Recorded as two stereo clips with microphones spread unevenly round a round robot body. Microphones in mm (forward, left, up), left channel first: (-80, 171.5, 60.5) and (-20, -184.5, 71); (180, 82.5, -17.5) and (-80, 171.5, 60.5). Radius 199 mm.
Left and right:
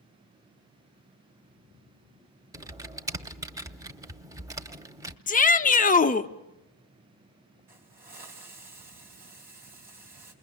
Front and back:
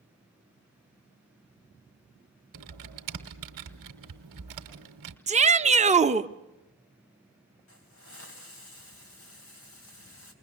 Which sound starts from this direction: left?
A shout, at 5.3 s.